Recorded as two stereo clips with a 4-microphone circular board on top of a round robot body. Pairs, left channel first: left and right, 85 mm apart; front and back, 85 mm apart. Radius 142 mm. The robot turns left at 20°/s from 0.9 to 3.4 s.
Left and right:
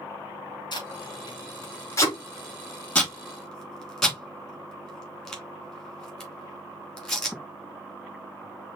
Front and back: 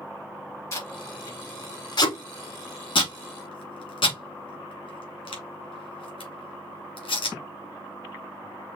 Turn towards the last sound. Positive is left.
turn(degrees=5)